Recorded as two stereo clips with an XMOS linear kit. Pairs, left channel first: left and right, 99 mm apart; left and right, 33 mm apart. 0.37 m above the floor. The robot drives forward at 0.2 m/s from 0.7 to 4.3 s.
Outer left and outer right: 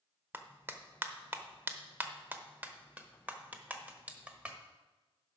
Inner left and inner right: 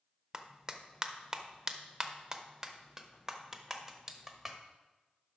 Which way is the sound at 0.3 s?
20° right (ahead or behind).